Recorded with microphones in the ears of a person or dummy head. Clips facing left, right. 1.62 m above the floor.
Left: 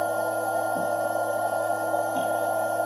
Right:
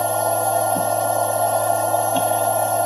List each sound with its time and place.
0.0 s a machine running: 75° right (ahead or behind), 0.9 m